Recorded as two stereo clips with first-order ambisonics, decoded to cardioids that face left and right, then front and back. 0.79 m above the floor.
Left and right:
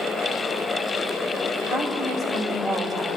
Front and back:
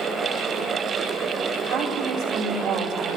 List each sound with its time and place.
1.7 s a woman speaking: 150° left, 2.5 m; by 3.2 s straight behind, 2 m